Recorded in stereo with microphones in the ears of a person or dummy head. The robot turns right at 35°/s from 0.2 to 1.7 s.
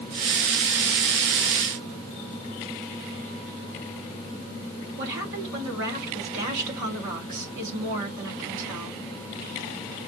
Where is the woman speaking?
70° right (ahead or behind), 3.5 m.